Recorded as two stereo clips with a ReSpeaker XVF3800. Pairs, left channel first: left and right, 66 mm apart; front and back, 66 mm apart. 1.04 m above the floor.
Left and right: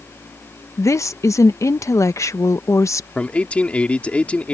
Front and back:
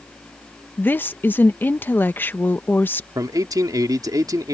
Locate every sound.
0.8 s a woman speaking: 55° left
3.1 s a man speaking: 160° left